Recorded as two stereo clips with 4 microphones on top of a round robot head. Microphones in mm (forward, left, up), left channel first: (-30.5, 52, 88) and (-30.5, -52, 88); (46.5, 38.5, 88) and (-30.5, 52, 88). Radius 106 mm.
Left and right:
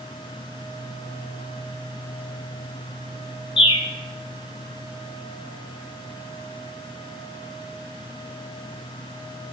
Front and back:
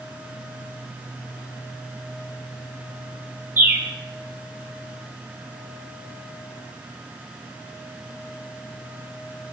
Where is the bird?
110° left, 1.1 m.